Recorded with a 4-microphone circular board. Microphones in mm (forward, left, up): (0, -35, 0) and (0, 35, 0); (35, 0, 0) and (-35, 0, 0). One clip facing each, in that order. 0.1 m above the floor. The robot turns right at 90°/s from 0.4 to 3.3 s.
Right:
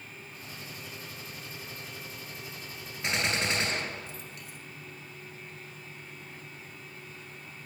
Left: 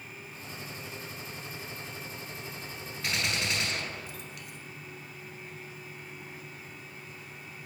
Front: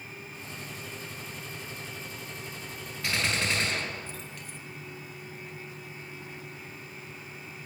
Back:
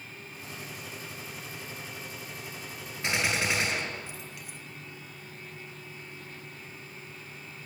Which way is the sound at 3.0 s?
135° right.